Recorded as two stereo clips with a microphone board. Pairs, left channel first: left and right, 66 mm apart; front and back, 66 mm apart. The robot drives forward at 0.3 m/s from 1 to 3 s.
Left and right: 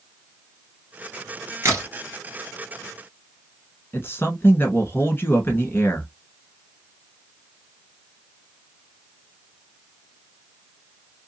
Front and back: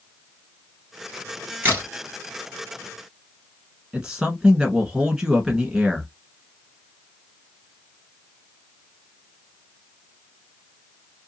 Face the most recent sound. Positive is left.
turn(degrees=110)